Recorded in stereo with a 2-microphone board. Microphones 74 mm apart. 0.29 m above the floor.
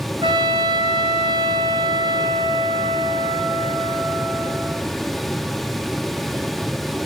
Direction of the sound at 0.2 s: 85° right.